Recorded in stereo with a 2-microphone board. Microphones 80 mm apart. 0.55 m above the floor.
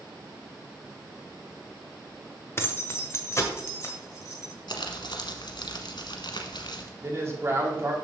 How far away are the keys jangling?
About 0.8 m.